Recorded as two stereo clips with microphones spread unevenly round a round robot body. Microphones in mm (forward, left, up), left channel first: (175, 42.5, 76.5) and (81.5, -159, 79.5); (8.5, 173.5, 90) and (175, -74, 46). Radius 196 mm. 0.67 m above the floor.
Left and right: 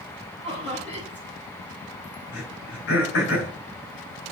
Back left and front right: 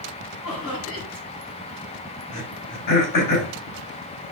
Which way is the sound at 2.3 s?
110° left.